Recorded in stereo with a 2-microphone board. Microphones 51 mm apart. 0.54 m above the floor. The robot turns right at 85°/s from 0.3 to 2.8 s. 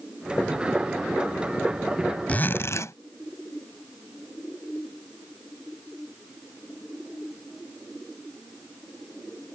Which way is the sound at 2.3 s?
30° left.